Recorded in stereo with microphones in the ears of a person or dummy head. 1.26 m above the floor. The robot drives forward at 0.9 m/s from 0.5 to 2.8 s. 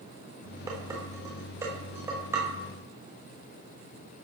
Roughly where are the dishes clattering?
Centre.